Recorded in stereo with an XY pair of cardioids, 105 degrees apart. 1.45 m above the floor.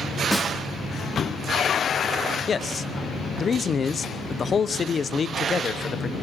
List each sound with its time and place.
0.3 s a snare drum: 15° left, 3 m
2.5 s a man speaking: 40° left, 0.9 m